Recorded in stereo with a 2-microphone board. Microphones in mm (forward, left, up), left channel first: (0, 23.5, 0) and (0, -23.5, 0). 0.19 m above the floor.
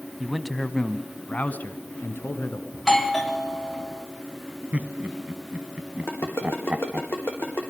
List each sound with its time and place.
0.2 s a man speaking: 5° right (ahead or behind), 1.0 m; by 2.6 s 55° left (ahead or behind), 1.8 m
2.7 s a doorbell: 5° left (ahead or behind), 1.6 m
4.7 s laughter: 30° right (ahead or behind), 1.3 m
6.1 s a ringtone: 50° left (ahead or behind), 4 m